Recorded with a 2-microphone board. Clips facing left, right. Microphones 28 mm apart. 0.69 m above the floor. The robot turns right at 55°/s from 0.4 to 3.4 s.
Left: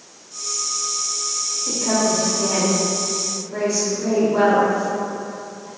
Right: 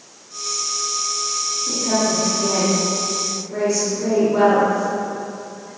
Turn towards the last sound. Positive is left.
turn(degrees=-15)  # may be behind; listen again after turning